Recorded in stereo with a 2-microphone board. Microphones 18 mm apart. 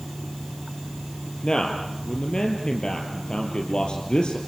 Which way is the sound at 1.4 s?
60° left (ahead or behind).